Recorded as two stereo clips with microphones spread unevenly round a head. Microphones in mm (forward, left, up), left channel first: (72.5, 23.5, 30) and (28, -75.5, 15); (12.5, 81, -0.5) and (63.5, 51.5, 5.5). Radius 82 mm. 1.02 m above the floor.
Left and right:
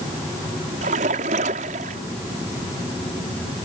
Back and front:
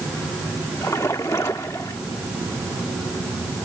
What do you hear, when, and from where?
0.8 s a splash: 140° right